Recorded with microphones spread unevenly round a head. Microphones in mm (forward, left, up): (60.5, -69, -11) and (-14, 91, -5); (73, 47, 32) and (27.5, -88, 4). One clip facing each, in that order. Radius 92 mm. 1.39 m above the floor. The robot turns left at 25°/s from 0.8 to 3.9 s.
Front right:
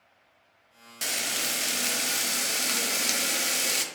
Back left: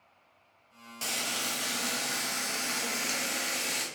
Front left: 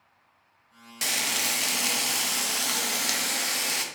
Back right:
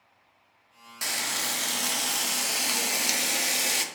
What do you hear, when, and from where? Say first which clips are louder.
1.0 s frying: front right 1 dB, front left 2 dB; 5° left, 0.6 m; by 3.9 s 65° right, 0.6 m